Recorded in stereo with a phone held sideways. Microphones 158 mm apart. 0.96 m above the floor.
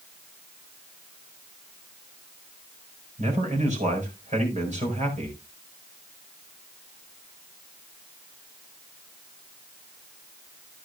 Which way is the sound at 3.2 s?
45° right (ahead or behind).